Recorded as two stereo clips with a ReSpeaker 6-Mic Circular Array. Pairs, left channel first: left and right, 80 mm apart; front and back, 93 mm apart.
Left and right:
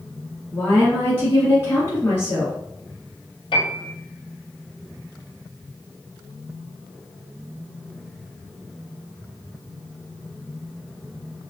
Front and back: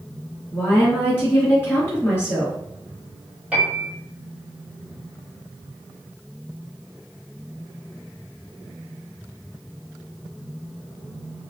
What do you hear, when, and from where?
0.5 s a woman speaking: 50° left, 1.8 m
3.5 s a piano: 105° left, 1.2 m